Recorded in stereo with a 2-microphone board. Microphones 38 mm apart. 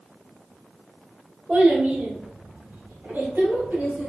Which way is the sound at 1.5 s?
55° right (ahead or behind).